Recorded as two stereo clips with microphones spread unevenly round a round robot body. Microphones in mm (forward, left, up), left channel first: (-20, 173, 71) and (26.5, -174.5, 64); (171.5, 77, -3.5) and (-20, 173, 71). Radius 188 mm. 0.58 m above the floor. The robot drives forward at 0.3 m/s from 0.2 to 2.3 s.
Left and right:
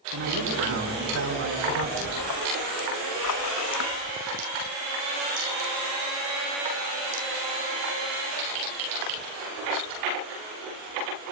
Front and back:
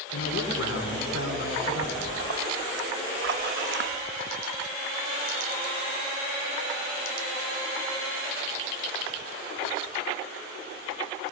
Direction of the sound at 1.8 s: 135° left.